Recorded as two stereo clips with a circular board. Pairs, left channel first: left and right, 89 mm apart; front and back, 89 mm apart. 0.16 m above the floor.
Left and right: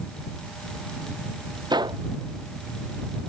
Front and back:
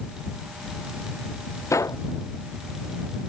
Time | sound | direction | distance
1.7 | a gunshot | 55° right | ?